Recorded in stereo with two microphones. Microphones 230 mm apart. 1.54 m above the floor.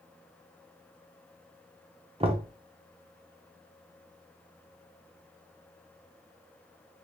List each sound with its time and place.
2.2 s knocking: 25° right (ahead or behind), 0.7 m